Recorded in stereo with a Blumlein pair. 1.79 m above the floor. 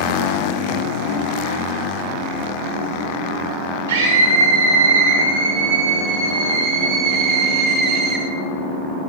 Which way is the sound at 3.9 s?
55° right.